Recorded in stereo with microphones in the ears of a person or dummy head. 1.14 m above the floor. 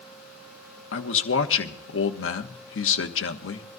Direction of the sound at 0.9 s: 65° left (ahead or behind).